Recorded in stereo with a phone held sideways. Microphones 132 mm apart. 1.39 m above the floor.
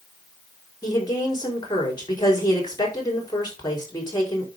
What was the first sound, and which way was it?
A woman speaking, 30° left (ahead or behind).